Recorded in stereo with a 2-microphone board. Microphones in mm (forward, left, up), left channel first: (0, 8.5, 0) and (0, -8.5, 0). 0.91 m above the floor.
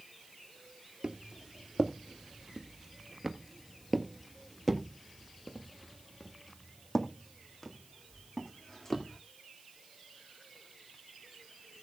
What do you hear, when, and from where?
1.0 s footsteps: 45° right (ahead or behind), 1.2 m; by 9.2 s 30° left (ahead or behind), 3.5 m